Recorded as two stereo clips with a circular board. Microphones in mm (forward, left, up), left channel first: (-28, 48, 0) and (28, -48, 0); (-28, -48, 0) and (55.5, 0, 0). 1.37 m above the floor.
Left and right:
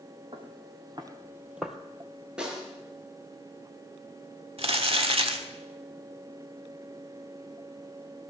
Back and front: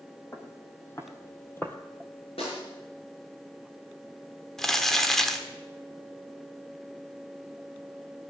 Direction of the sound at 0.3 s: 90° right.